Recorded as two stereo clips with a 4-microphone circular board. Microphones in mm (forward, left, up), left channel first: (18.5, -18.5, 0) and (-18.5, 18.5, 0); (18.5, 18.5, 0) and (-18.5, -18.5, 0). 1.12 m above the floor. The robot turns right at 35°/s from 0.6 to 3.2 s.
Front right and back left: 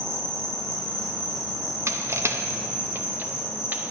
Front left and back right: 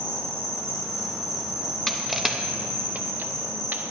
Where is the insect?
120° left, 2.5 m; by 3.9 s 150° right, 2.5 m.